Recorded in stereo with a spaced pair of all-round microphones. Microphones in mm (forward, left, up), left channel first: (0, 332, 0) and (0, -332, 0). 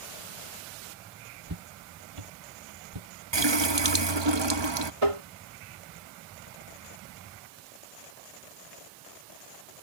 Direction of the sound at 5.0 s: 50° right (ahead or behind).